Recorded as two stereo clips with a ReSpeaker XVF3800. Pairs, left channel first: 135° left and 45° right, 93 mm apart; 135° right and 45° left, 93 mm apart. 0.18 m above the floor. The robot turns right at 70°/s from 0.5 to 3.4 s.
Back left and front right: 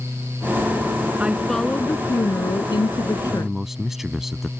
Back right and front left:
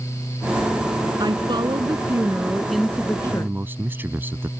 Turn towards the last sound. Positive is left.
turn(degrees=35)